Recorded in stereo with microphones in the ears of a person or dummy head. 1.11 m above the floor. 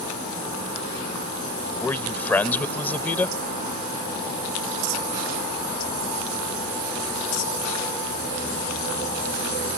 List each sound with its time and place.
1.8 s a man speaking: 15° left (ahead or behind)